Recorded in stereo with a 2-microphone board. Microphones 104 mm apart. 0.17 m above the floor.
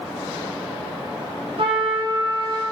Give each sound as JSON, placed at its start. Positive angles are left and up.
{"t": 1.6, "sound": "a trumpet", "side_deg": -60, "distance_m": 0.9}